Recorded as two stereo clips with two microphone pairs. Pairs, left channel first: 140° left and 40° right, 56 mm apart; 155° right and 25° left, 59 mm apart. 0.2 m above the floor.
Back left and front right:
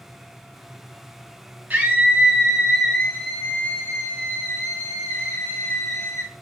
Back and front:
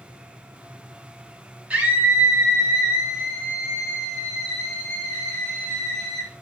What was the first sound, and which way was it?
A scream, 20° right.